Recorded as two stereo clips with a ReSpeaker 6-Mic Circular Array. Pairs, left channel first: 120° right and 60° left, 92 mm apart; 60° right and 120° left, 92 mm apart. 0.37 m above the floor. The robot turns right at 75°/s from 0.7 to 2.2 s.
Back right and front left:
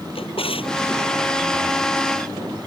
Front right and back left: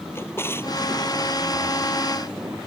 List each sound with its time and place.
0.1 s a drawer: 125° right; by 0.9 s 110° right